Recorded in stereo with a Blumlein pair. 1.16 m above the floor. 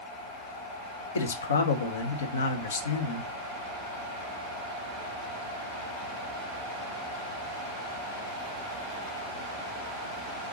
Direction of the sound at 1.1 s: 70° left.